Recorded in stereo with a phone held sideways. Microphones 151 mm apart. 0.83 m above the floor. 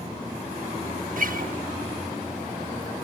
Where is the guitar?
65° right (ahead or behind), 1.0 m.